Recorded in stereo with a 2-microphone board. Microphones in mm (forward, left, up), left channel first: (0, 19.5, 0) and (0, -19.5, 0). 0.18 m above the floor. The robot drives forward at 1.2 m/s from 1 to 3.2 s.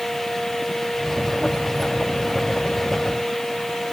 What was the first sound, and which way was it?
Only background noise.